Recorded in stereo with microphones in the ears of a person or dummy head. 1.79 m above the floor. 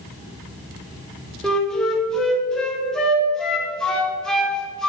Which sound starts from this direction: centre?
A flute, at 1.4 s.